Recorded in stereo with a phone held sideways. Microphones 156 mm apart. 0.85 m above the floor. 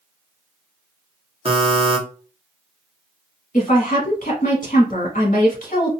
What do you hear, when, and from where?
1.4 s a buzzer: 40° right (ahead or behind), 1.1 m
3.5 s a woman speaking: 55° left (ahead or behind), 1.5 m